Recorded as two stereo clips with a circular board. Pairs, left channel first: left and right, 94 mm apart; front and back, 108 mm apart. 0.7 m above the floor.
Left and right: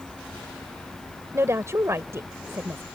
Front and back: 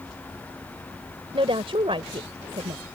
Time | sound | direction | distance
1.3 | a woman speaking | 150° right | ?